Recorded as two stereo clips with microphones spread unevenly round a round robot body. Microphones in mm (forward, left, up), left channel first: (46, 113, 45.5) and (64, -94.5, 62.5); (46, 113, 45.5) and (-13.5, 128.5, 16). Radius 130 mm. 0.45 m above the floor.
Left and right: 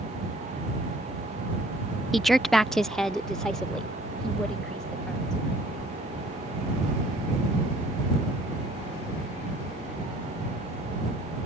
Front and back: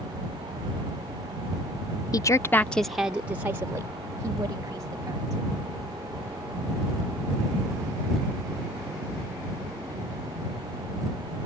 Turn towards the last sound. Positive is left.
turn(degrees=180)